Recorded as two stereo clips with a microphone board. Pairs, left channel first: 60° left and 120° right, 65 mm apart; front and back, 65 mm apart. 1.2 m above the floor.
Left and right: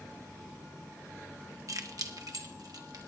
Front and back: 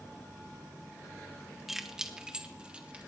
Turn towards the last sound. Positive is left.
turn(degrees=-110)